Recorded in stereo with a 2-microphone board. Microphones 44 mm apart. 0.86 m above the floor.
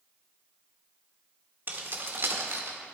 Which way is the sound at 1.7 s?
45° right (ahead or behind).